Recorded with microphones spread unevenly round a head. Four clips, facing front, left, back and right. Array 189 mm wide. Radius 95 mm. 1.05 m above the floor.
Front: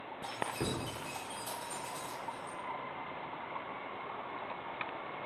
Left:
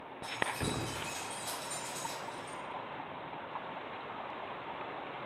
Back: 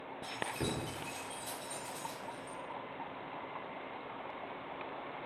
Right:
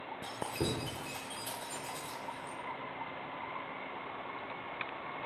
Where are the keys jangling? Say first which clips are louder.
Left 1 dB, front 2 dB; 105° right, 1.4 m.